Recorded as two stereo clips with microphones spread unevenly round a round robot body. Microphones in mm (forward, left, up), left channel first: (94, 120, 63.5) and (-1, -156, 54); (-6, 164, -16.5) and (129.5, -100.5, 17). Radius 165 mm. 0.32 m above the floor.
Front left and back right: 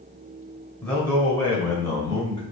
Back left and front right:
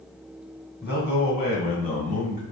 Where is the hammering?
No hammering in this recording.